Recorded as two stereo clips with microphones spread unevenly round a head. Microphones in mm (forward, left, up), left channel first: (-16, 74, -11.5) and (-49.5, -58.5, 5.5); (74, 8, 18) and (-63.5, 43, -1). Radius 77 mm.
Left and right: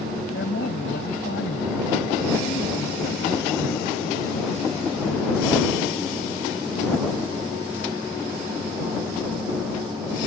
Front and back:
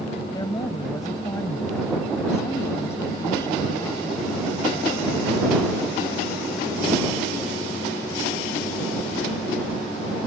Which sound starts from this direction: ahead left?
A woman speaking, at 0.3 s.